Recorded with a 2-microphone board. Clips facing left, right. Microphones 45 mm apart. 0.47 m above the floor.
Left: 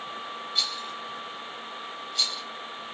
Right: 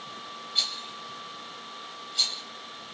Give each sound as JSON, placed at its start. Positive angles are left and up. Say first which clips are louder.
{"t": 0.6, "sound": "a rattle", "louder": "left 1 dB", "side_deg": -5, "distance_m": 1.9}